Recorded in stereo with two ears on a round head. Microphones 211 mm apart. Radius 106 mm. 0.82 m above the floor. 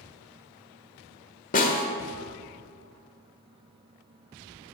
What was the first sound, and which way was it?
A snare drum, 35° left (ahead or behind).